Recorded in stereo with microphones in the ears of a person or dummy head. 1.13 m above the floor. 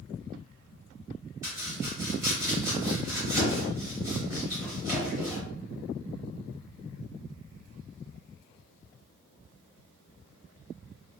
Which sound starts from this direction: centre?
Chopping, at 1.4 s.